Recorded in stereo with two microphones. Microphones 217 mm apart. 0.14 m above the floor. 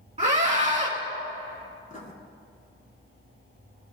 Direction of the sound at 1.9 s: 40° left (ahead or behind).